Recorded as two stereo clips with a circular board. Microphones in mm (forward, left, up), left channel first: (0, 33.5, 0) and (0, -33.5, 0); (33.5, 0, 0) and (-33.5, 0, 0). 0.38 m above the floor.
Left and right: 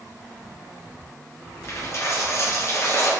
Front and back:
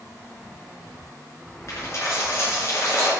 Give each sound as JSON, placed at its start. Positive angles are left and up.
{"t": 1.7, "sound": "a dropped coin", "azimuth_deg": 45, "distance_m": 2.5}